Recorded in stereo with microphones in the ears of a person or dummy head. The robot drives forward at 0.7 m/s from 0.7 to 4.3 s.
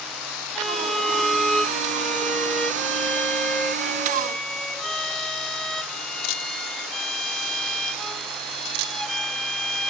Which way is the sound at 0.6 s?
5° right (ahead or behind).